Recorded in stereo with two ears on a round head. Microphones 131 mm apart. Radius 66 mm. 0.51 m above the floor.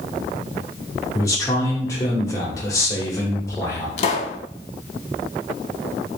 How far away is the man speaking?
About 1.2 m.